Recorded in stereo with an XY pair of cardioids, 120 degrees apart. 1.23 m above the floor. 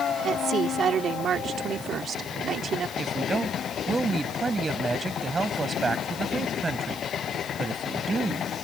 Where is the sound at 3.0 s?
20° right.